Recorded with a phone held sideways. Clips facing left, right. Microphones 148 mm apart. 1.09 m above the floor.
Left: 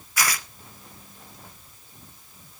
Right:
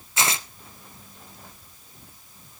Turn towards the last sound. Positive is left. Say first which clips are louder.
# right 1 dB
turn(degrees=-25)  # may be behind; listen again after turning